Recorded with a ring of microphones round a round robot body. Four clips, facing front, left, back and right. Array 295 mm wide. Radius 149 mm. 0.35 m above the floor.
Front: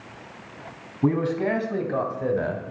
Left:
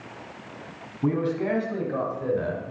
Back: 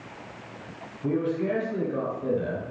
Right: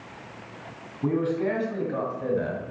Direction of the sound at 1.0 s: 5° left.